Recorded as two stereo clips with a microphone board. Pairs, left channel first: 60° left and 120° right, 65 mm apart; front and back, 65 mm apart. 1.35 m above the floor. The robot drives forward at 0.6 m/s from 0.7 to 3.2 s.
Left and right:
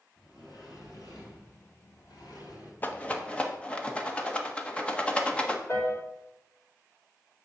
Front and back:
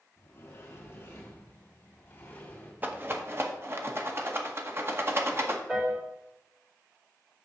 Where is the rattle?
120° left, 0.9 m; by 5.6 s 135° left, 1.0 m.